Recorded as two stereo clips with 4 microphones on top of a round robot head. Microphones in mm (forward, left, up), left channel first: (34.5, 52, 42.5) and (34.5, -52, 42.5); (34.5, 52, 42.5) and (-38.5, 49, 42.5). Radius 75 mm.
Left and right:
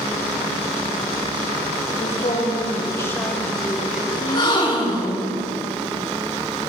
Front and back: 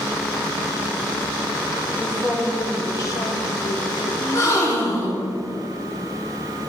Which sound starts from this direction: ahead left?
A gasp, at 4.2 s.